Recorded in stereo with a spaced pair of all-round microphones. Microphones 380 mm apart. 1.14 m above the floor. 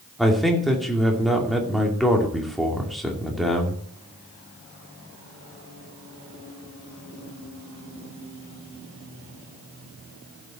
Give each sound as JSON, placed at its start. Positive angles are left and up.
{"t": 0.2, "sound": "a man speaking", "side_deg": 0, "distance_m": 2.5}